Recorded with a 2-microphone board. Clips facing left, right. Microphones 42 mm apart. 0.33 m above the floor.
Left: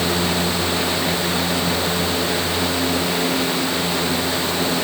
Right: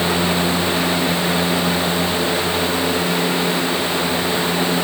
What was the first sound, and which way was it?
Only background noise.